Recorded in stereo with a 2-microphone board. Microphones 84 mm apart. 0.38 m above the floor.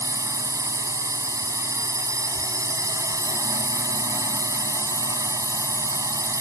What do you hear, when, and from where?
0.0 s a drone: 40° right (ahead or behind)